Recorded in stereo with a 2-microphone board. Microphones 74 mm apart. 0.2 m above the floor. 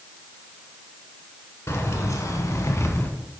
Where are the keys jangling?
40° left (ahead or behind), 1.4 m; by 3.1 s 30° left (ahead or behind), 1.1 m.